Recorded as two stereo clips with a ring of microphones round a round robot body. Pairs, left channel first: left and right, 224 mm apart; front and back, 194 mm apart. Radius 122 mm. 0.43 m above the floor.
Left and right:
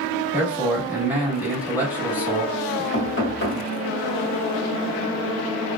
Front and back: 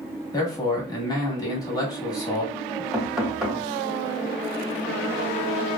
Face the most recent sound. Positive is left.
turn(degrees=95)